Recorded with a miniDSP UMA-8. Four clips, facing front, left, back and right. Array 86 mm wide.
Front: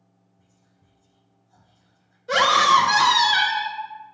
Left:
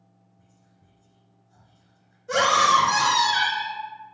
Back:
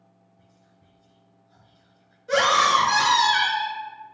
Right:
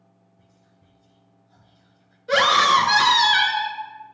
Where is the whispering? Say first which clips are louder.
Right 2 dB, back 4 dB; 140° right, 1.3 m.